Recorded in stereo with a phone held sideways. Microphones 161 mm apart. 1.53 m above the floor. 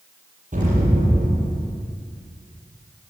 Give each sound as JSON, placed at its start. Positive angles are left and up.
{"t": 0.5, "sound": "an explosion", "side_deg": -55, "distance_m": 8.5}